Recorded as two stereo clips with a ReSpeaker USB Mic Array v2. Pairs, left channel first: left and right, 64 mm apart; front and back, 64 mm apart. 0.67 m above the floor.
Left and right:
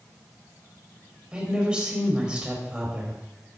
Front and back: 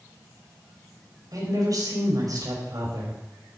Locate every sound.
1.3 s a woman speaking: 165° right, 3.5 m